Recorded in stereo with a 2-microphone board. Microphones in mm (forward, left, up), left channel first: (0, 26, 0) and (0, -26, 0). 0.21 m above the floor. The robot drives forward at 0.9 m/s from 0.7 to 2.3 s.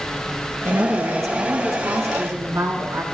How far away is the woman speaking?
About 3.5 m.